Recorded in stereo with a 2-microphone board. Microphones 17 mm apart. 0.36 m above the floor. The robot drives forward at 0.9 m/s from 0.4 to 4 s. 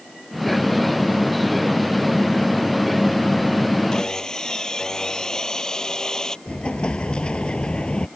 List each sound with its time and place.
3.9 s sawing: 40° left (ahead or behind); by 6.4 s 35° left (ahead or behind)
6.5 s an explosion: 80° left